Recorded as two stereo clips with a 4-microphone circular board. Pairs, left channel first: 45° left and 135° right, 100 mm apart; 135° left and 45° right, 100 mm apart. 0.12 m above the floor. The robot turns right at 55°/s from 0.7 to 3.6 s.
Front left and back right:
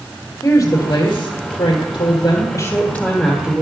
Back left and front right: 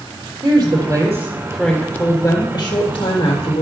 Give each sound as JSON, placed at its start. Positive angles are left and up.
{"t": 0.4, "sound": "a woman speaking", "azimuth_deg": -5, "distance_m": 3.5}